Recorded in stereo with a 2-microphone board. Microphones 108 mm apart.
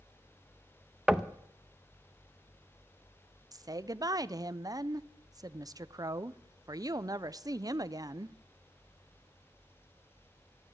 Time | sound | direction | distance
1.1 | knocking | 5° right (ahead or behind) | 0.7 m
3.5 | a woman speaking | 35° right (ahead or behind) | 0.5 m